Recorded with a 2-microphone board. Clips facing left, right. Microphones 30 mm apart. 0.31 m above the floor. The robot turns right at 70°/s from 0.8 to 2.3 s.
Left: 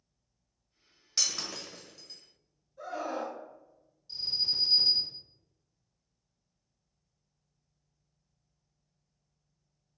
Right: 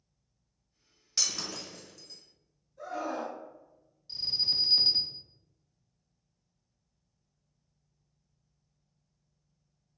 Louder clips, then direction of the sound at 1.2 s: Even; 10° left (ahead or behind).